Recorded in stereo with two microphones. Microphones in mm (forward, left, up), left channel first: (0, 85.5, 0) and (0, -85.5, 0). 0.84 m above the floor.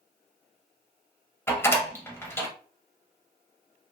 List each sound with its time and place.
1.5 s a door slam: 15° left (ahead or behind), 0.9 m